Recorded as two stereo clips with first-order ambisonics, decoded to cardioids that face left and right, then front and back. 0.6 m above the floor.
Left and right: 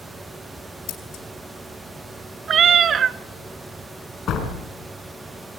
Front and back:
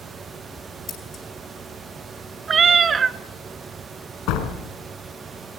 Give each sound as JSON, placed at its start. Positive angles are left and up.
{"t": 0.9, "sound": "scissors", "azimuth_deg": 65, "distance_m": 4.0}
{"t": 2.5, "sound": "a cat meowing", "azimuth_deg": -130, "distance_m": 0.6}
{"t": 4.3, "sound": "a door slam", "azimuth_deg": 35, "distance_m": 4.0}